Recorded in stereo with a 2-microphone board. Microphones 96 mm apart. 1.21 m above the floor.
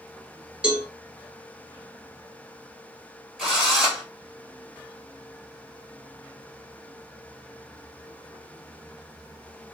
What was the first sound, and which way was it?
A cowbell, 10° right (ahead or behind).